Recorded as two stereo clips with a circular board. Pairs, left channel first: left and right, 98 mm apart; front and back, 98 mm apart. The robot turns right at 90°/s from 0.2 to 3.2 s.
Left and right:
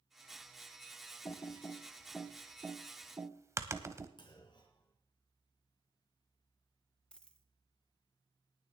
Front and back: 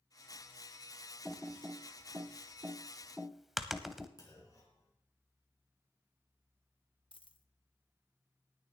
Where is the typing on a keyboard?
90° left, 0.8 m; by 4.1 s 95° right, 0.8 m.